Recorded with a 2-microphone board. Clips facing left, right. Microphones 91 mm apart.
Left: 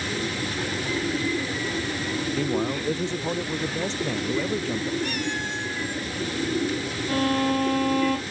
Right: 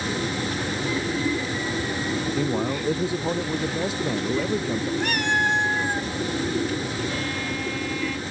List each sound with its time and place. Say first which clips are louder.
2.3 s a man speaking: left 1 dB; 10° right (ahead or behind)
5.0 s a cat meowing: right 5 dB; 65° right (ahead or behind)
7.1 s a violin: left 6 dB; 50° left (ahead or behind)